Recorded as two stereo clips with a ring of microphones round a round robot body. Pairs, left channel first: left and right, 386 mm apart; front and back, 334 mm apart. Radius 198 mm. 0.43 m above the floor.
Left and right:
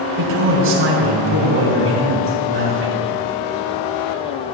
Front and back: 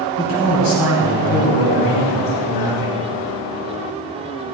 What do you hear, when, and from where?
0.2 s a man speaking: 30° right, 2.5 m